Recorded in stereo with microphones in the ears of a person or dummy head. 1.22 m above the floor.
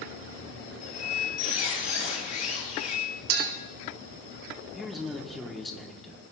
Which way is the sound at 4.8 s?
Centre (ahead or behind).